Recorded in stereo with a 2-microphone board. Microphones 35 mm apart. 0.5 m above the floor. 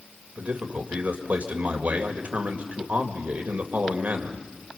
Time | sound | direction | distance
0.4 | a man speaking | 55° right (ahead or behind) | 2 m